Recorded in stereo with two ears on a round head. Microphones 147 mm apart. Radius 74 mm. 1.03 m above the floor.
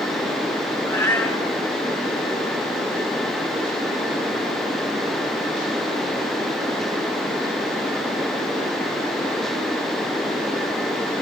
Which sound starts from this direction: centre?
A cat meowing, at 0.9 s.